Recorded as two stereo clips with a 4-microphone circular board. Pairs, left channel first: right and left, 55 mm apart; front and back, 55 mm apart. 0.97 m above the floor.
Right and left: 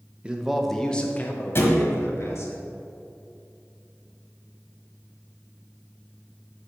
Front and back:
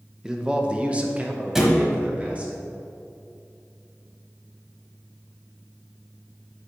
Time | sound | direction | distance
0.2 | a man speaking | 115° left | 0.6 m
1.6 | a thud | 100° right | 1.1 m